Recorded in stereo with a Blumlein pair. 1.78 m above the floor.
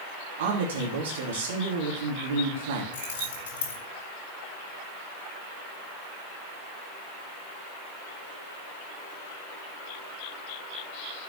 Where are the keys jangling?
50° left, 4.5 m.